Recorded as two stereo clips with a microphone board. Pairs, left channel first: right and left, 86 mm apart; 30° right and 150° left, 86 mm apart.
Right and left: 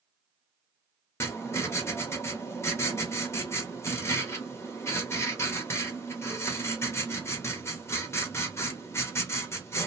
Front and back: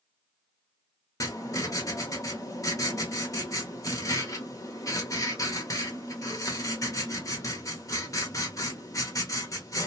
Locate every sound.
1.2 s writing: 50° right, 0.8 m